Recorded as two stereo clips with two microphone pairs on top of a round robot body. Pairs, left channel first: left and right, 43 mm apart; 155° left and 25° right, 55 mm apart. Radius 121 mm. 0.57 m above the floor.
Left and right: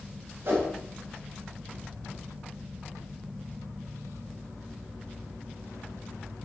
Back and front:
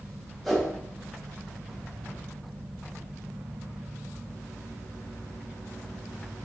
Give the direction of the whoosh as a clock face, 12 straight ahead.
4 o'clock.